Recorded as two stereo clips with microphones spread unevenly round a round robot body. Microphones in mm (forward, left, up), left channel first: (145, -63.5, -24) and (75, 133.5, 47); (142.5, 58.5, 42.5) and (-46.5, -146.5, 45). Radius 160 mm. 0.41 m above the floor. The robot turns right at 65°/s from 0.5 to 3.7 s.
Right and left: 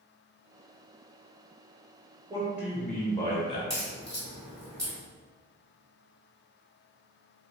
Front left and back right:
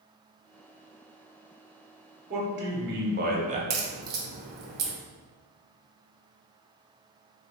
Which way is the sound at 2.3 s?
160° right.